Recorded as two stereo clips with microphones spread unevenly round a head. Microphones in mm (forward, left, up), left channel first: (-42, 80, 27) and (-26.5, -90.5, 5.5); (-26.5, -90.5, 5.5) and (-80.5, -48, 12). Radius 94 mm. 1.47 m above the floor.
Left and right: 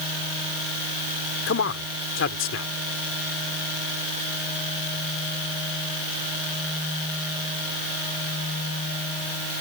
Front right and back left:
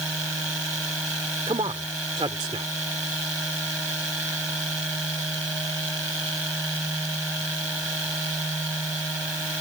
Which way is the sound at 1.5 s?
100° left.